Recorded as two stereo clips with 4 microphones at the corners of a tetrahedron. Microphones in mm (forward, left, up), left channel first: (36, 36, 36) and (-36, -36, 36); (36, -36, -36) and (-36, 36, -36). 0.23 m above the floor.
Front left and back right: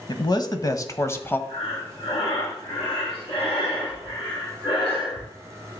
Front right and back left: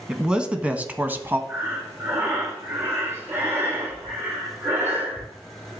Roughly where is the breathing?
Left.